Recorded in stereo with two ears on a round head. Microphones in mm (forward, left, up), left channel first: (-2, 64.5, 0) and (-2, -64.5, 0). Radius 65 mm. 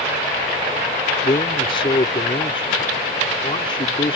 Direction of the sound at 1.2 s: 35° left (ahead or behind).